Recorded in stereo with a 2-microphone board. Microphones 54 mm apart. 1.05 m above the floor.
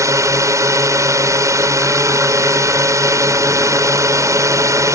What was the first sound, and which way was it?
A drone, 70° right (ahead or behind).